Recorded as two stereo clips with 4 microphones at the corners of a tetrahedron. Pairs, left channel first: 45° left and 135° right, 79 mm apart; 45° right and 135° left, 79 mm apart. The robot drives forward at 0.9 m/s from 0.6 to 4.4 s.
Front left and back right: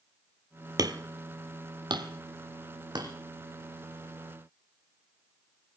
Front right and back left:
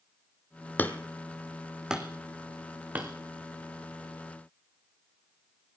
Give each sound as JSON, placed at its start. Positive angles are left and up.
{"t": 0.8, "sound": "hammering", "azimuth_deg": -110, "distance_m": 1.1}